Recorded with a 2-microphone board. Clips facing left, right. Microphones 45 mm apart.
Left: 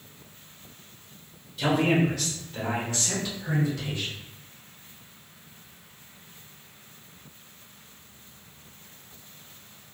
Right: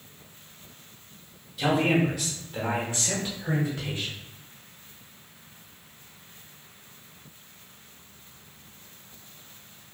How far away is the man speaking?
About 1.2 m.